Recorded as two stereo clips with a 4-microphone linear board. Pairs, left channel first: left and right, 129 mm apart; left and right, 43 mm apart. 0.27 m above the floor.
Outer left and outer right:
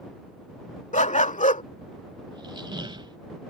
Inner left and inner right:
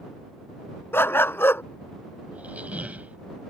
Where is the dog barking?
70° left (ahead or behind).